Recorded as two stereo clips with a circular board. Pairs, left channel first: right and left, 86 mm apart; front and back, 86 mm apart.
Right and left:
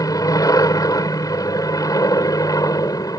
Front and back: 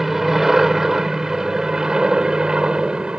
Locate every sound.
0.0 s an aircraft: 95° right; by 3.2 s 105° right